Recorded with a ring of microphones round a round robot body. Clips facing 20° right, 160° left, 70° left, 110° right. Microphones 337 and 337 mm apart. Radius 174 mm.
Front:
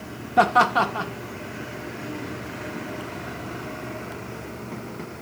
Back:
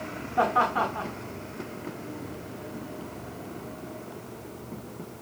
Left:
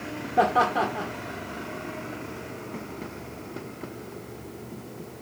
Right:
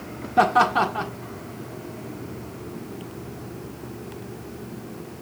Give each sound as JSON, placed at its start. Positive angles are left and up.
{"t": 0.4, "sound": "laughter", "azimuth_deg": -50, "distance_m": 1.6}